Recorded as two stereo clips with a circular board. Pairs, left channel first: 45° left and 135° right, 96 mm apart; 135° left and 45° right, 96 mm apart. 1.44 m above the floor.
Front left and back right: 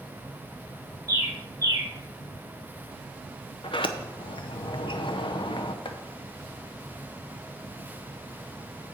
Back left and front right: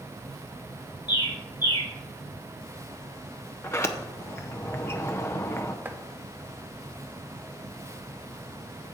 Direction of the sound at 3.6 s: 75° left.